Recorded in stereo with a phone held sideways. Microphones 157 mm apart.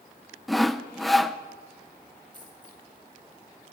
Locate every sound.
0.5 s sawing: centre (ahead or behind), 0.8 m
2.3 s a dropped coin: 30° left (ahead or behind), 8.5 m